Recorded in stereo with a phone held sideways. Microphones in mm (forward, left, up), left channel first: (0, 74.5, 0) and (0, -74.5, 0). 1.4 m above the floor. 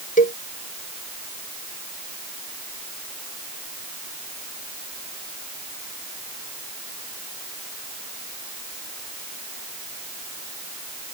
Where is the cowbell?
65° left (ahead or behind).